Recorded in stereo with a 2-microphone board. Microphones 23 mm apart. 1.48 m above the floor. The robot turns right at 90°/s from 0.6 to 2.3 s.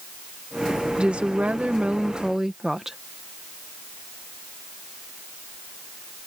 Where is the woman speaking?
140° right; by 3.0 s 20° right.